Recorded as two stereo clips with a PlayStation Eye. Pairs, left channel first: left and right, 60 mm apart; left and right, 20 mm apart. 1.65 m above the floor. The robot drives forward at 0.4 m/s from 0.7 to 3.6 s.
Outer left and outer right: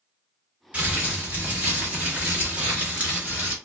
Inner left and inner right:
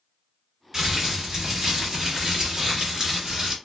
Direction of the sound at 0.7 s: 20° right (ahead or behind).